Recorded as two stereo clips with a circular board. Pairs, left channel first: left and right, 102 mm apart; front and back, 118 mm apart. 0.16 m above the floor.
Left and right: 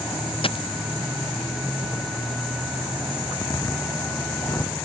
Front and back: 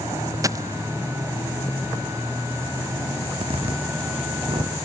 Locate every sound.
0.4 s a dropped coin: 120° left
3.2 s a zipper: 145° left